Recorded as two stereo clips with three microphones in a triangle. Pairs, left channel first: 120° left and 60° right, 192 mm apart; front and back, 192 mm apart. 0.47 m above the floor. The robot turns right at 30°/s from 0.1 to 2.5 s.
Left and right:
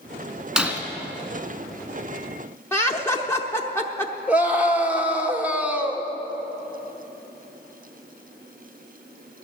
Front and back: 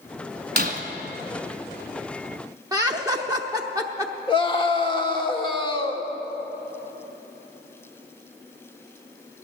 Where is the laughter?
165° left, 0.8 m.